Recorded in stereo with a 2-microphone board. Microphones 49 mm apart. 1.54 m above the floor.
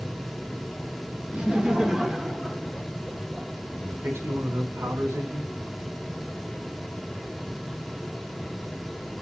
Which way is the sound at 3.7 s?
80° right.